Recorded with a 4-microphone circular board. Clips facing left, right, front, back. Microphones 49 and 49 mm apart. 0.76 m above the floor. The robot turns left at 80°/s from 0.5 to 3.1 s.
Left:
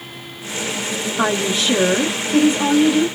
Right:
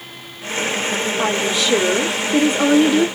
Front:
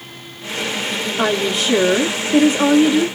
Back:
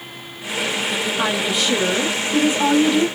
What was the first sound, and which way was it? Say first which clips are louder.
A woman speaking: left 3 dB, front 5 dB; 70° left.